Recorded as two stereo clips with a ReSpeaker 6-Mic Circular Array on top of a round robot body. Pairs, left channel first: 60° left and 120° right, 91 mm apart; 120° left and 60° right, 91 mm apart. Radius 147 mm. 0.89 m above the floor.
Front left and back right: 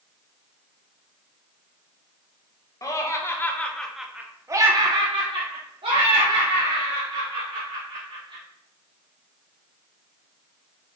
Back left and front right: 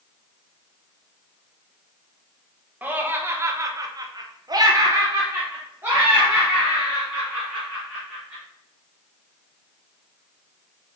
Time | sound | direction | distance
2.8 | laughter | 10° left | 1.1 m